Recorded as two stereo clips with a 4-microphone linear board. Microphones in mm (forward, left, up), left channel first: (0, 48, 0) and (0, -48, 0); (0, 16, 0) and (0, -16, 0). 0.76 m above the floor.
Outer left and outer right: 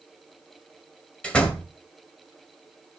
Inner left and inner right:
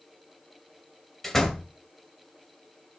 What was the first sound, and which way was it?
A door slam, 10° left (ahead or behind).